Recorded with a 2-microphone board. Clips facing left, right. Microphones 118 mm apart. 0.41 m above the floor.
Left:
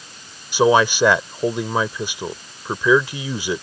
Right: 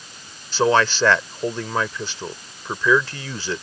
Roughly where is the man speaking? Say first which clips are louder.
Left 3 dB; centre.